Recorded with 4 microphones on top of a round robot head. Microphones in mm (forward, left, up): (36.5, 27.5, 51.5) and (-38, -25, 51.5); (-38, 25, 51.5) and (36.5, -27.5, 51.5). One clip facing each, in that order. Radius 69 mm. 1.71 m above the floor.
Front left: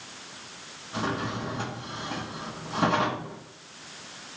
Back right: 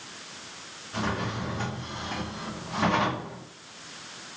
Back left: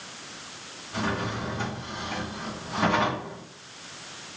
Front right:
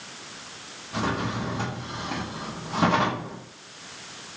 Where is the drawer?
10° right, 1.0 m.